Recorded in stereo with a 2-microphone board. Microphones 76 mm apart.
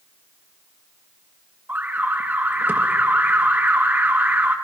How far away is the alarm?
About 1.4 m.